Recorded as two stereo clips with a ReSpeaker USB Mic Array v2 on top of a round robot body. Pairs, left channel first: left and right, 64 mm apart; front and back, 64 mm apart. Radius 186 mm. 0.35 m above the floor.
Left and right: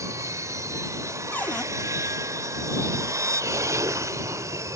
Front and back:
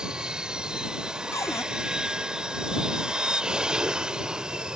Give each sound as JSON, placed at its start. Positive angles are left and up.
{"t": 0.0, "sound": "an aircraft", "azimuth_deg": -105}
{"t": 1.3, "sound": "a cupboard door", "azimuth_deg": 30}